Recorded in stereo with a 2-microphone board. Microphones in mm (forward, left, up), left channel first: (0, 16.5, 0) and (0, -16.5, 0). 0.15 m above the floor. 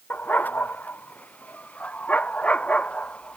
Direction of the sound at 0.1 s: 55° left (ahead or behind).